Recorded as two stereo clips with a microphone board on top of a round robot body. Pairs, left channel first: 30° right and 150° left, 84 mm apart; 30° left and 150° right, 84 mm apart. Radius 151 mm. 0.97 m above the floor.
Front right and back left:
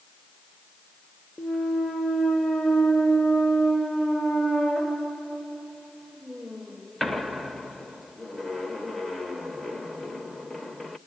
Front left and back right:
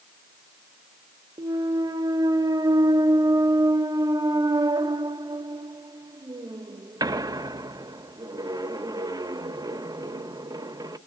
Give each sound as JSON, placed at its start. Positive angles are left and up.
{"t": 1.4, "sound": "a clunk", "azimuth_deg": -120, "distance_m": 0.8}